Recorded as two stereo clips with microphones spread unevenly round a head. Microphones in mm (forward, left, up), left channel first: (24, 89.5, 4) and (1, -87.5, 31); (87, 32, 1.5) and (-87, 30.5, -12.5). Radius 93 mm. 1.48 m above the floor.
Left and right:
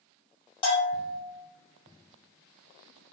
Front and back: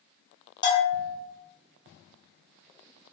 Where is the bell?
30° left, 1.5 m.